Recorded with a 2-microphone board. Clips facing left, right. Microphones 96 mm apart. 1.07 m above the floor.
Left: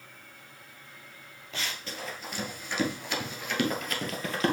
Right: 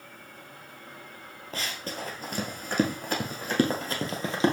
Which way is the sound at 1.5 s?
40° right (ahead or behind).